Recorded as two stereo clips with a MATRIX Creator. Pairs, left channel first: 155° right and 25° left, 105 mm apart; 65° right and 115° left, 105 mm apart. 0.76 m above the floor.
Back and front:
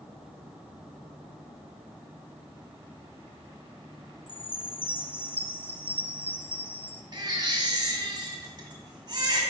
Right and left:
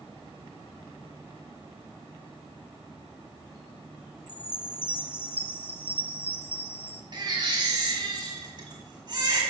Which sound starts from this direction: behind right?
A chime, at 4.3 s.